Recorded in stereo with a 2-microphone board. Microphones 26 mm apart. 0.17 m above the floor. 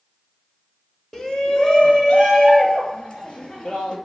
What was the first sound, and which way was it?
A shout, 25° left (ahead or behind).